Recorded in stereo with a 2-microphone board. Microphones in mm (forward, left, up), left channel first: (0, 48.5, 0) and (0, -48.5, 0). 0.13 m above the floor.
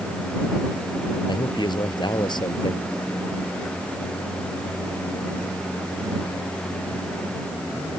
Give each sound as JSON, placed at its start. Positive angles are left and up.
{"t": 1.3, "sound": "a man speaking", "side_deg": 50}